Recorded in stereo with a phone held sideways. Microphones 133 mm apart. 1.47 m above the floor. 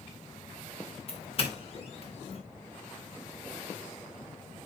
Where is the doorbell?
45° left (ahead or behind), 2.5 m.